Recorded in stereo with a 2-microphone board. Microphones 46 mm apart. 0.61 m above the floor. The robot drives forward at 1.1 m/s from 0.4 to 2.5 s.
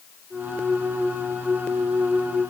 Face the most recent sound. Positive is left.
No sound to turn to.